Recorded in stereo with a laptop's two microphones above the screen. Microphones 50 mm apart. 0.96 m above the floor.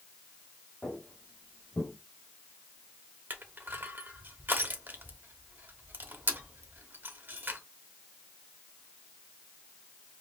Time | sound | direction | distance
0.8 | footsteps | 25° left (ahead or behind) | 2 m
3.3 | crushing | 45° right (ahead or behind) | 0.9 m